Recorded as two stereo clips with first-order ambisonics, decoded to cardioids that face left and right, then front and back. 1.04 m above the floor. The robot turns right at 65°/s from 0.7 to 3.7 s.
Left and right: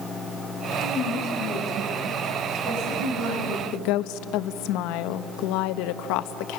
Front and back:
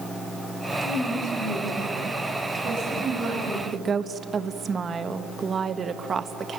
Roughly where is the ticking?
No ticking in this recording.